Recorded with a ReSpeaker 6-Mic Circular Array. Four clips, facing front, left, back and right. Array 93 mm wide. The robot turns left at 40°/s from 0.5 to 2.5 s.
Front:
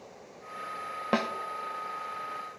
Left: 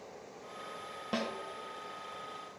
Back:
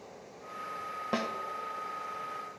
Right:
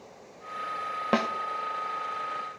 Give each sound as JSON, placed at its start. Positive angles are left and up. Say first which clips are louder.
{"t": 1.1, "sound": "a snare drum", "louder": "right 9 dB, front 5 dB", "azimuth_deg": -60, "distance_m": 0.6}